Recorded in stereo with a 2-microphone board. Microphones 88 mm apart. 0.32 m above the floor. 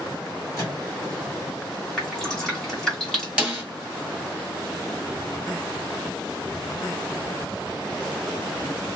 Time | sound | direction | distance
0.6 | a microwave | 40° left (ahead or behind) | 2.0 m
2.0 | dripping | 5° left (ahead or behind) | 1.4 m
3.4 | a snare drum | 10° right (ahead or behind) | 1.3 m